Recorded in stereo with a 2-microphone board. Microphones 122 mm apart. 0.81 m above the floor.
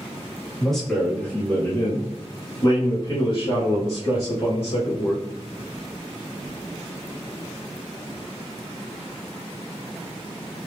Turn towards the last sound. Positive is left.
turn(degrees=65)  # may be behind; listen again after turning